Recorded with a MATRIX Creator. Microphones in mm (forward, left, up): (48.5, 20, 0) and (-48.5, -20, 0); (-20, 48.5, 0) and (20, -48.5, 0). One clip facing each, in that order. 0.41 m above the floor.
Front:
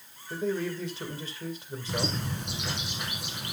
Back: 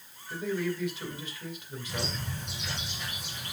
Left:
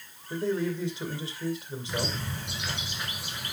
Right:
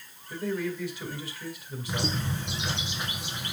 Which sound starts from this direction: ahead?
A bird, at 1.9 s.